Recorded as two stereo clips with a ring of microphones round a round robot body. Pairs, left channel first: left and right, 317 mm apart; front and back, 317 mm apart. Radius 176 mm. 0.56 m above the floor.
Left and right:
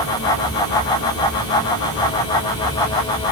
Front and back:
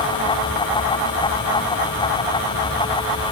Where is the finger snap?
I don't hear a finger snap.